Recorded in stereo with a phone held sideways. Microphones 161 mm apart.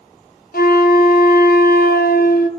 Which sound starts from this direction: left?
A flute, at 0.5 s.